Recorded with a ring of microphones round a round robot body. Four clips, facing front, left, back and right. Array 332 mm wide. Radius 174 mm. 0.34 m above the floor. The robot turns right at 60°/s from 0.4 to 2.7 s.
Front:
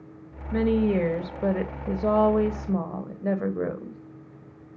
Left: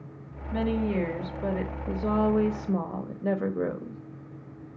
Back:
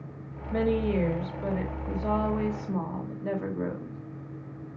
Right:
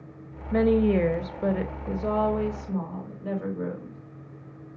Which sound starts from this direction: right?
A woman speaking, at 0.5 s.